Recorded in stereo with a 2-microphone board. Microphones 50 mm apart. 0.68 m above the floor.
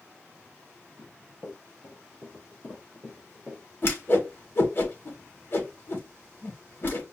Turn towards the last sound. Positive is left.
turn(degrees=45)  # may be behind; listen again after turning